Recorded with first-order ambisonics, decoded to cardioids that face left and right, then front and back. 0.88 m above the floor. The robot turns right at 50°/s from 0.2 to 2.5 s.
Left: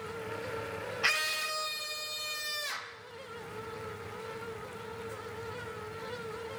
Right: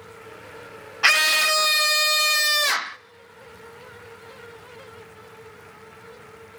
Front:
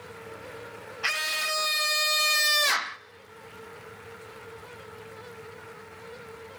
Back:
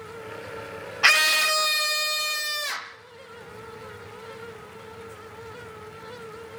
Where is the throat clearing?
I don't hear throat clearing.